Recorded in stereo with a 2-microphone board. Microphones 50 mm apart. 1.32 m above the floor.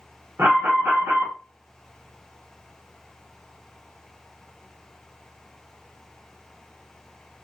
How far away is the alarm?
About 1.7 m.